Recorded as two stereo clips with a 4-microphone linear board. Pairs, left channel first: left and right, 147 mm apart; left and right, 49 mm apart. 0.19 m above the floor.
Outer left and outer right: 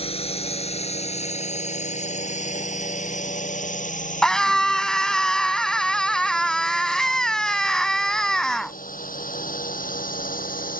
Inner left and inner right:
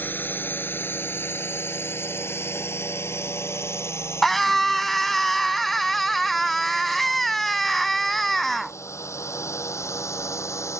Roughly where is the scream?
Centre.